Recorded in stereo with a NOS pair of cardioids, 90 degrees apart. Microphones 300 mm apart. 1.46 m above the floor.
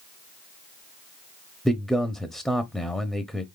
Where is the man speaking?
Straight ahead, 0.6 m.